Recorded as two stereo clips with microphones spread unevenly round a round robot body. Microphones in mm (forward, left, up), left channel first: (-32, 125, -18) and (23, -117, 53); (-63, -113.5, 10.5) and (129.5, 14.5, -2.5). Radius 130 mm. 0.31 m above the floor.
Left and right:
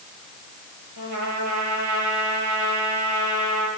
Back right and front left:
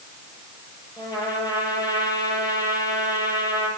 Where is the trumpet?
75° right, 9 m.